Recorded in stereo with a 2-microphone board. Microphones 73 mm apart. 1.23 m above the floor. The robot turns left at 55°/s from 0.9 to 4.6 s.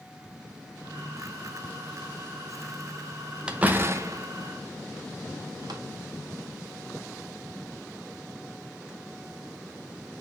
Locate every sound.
3.5 s a door slam: 15° right (ahead or behind), 0.7 m; by 5.8 s 75° right (ahead or behind), 0.7 m